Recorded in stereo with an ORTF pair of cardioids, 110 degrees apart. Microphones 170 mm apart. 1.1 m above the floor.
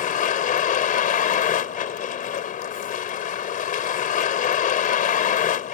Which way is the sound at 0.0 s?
50° left.